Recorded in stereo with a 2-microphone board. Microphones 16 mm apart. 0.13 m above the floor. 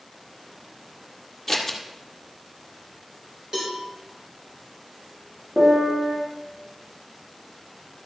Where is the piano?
65° right (ahead or behind), 5.5 m.